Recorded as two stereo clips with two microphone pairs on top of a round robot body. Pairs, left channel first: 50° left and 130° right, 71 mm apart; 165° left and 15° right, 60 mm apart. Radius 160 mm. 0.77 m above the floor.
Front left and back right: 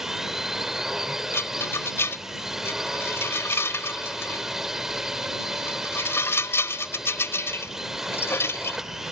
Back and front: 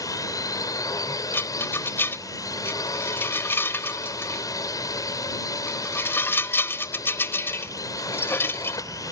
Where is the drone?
145° left.